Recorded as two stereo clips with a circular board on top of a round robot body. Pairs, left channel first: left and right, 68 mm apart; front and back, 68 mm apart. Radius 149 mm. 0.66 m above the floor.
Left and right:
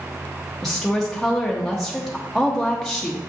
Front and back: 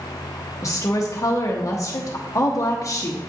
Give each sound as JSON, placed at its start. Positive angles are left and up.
{"t": 0.6, "sound": "a woman speaking", "azimuth_deg": 5, "distance_m": 1.0}